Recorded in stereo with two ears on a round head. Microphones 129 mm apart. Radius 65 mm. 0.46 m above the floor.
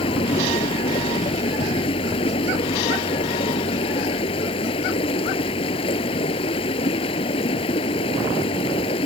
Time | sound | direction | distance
0.0 | running water | 40° left (ahead or behind) | ?